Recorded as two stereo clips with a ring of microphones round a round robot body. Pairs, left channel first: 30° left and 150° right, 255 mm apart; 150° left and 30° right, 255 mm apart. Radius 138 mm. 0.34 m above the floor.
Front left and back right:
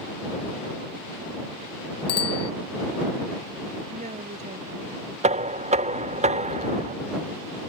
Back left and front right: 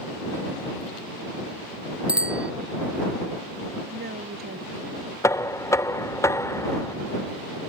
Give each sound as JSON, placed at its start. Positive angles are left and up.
{"t": 2.1, "sound": "a bicycle bell", "azimuth_deg": 55}
{"t": 3.9, "sound": "a woman speaking", "azimuth_deg": -85}
{"t": 5.2, "sound": "knocking", "azimuth_deg": -145}